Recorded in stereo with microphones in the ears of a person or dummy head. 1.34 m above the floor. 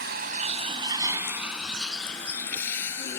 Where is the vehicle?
65° right (ahead or behind); by 3.2 s 15° left (ahead or behind).